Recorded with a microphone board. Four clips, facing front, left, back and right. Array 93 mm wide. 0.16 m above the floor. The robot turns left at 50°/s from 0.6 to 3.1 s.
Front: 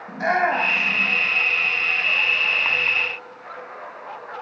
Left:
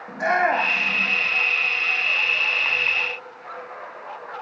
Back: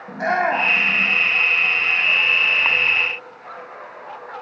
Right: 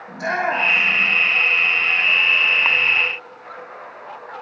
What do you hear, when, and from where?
0.1 s a shout: 150° left, 7.5 m; by 1.1 s 120° left, 7.5 m